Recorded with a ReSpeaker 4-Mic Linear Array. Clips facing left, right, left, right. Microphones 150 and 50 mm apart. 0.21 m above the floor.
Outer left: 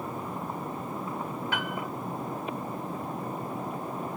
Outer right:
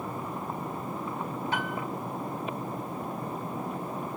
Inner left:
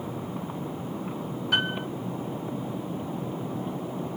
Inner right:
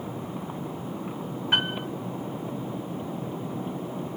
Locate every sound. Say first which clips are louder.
1.5 s a piano: outer right 1 dB, even; 35° right (ahead or behind), 2 m